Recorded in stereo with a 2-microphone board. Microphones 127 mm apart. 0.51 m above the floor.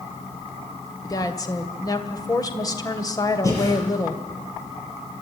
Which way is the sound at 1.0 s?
25° left (ahead or behind).